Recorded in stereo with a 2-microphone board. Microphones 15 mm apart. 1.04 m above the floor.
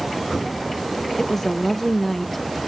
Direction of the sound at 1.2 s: 20° left (ahead or behind).